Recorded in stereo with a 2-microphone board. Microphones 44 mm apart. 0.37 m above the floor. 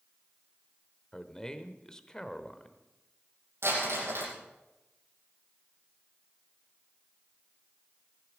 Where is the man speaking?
15° left (ahead or behind), 1.2 m.